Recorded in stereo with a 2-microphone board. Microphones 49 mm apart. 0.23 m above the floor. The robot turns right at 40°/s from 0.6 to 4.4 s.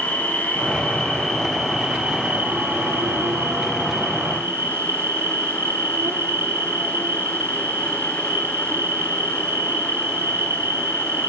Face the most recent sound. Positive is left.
turn(degrees=-55)